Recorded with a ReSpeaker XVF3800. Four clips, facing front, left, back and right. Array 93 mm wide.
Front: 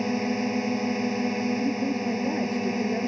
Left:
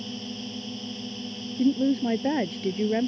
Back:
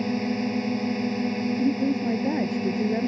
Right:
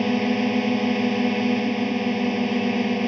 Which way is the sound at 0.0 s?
75° right.